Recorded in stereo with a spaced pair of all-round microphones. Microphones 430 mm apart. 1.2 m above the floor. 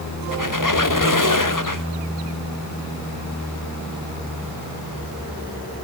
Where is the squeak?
50° left (ahead or behind), 1.3 m.